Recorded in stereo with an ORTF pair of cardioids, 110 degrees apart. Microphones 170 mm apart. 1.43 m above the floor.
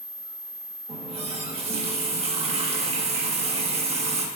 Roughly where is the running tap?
Ahead right.